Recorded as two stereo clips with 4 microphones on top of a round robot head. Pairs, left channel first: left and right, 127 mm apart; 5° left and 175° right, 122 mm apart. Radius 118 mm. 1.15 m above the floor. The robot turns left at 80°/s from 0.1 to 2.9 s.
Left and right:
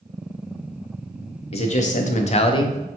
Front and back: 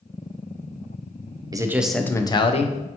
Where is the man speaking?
125° left, 0.5 m; by 2.8 s 20° left, 0.5 m.